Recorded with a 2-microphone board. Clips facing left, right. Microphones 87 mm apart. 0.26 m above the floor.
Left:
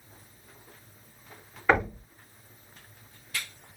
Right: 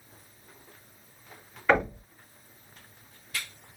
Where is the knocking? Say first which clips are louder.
Even; 10° left (ahead or behind), 1.9 m.